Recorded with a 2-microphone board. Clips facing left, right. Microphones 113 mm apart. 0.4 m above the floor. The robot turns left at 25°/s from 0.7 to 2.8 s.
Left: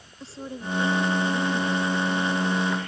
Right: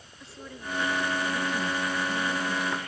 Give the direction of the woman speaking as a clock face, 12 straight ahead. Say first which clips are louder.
Left 6 dB; 11 o'clock.